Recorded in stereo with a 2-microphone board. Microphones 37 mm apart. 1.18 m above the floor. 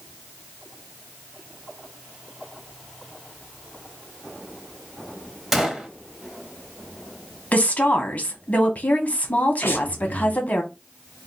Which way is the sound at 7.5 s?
45° left (ahead or behind).